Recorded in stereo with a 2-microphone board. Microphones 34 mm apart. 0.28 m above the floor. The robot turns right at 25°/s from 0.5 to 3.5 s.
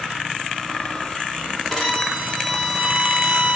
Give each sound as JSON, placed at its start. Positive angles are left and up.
{"t": 1.7, "sound": "a violin", "azimuth_deg": 165, "distance_m": 2.0}